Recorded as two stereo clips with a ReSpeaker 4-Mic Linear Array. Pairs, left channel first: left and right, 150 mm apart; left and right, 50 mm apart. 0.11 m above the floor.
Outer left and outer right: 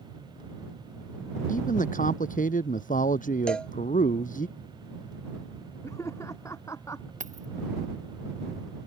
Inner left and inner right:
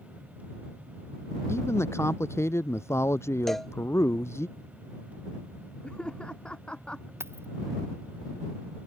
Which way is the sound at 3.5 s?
5° left (ahead or behind).